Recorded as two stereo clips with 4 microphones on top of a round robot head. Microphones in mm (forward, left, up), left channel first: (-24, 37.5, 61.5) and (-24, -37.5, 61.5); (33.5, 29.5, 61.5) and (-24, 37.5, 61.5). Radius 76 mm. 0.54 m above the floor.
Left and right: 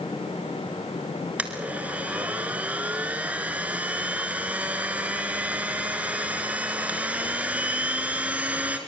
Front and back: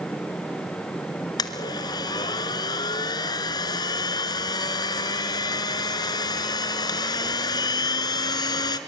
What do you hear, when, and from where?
1.4 s a blender: 15° right, 1.5 m